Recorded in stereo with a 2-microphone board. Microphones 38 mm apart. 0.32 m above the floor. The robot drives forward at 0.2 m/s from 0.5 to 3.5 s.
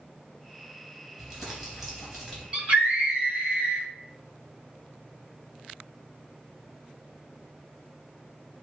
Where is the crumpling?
Centre (ahead or behind), 3.5 m.